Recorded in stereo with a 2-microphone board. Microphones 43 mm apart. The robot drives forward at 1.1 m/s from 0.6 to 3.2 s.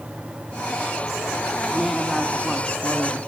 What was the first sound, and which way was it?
A woman speaking, 5° left (ahead or behind).